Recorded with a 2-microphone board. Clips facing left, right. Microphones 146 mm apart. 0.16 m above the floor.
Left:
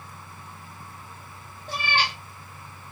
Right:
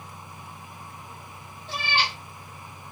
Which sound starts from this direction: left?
A cat meowing, at 1.7 s.